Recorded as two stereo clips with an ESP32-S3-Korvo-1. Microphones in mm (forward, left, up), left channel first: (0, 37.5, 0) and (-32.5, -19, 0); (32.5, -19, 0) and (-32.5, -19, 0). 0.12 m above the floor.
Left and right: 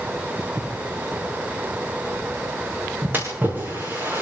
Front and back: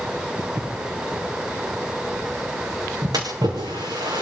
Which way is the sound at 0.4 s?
150° right.